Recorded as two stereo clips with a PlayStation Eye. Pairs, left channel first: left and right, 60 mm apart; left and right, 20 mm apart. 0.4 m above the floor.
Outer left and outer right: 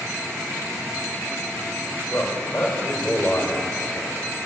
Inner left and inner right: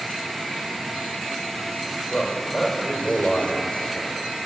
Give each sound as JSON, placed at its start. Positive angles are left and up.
{"t": 2.1, "sound": "a man speaking", "side_deg": 15, "distance_m": 1.5}